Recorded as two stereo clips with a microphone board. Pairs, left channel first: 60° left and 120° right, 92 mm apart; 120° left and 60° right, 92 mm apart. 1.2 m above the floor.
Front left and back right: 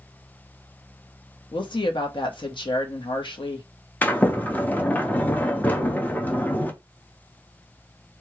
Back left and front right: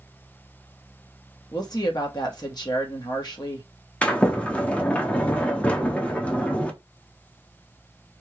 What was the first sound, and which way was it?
A woman speaking, 80° left.